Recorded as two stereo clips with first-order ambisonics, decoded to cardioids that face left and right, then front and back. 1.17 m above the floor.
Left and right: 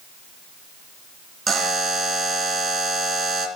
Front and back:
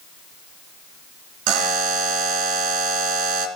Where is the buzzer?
160° right, 2.5 m.